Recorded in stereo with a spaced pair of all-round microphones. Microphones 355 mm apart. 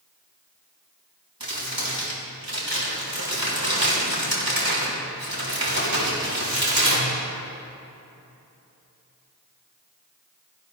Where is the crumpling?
85° right, 5.5 m.